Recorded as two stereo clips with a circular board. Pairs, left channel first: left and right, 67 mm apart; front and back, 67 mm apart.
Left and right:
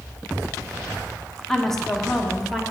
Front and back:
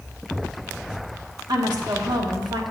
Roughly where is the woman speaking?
Behind.